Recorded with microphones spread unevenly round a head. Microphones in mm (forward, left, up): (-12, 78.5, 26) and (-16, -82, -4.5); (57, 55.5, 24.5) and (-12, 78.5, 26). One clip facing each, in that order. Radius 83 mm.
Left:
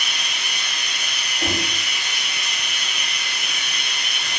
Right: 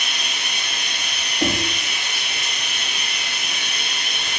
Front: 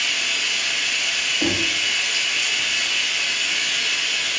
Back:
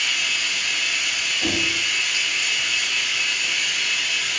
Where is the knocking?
70° right, 0.7 m.